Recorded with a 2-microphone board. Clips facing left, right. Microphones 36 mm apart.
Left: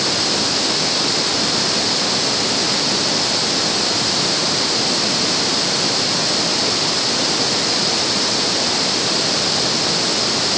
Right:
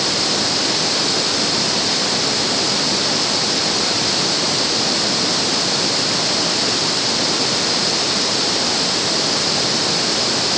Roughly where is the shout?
No shout in this recording.